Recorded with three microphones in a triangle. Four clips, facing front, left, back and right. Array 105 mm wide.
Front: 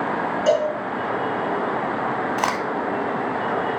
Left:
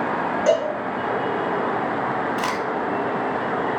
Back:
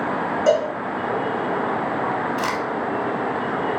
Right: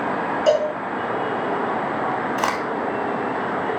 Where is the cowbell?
130° left, 1.4 m.